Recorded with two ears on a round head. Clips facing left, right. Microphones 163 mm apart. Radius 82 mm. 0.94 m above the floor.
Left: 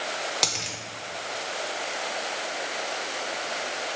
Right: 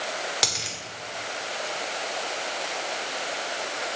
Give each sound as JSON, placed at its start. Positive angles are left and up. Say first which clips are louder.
{"t": 0.4, "sound": "a dropped coin", "louder": "even", "side_deg": -5, "distance_m": 1.0}